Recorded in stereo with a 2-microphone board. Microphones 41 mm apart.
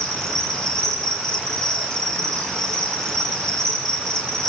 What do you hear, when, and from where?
0.0 s an insect: 15° left (ahead or behind), 8 m